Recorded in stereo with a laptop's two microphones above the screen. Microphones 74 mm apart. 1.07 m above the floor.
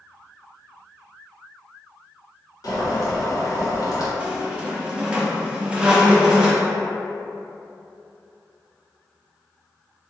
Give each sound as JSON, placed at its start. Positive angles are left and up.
{"t": 2.6, "sound": "boiling", "side_deg": 55, "distance_m": 1.0}
{"t": 4.2, "sound": "a squeak", "side_deg": -15, "distance_m": 0.5}